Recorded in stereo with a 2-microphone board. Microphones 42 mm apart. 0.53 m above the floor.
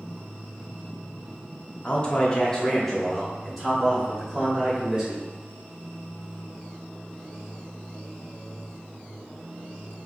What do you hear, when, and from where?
1.8 s a man speaking: 30° left (ahead or behind), 1.1 m; by 5.2 s 15° right (ahead or behind), 2.5 m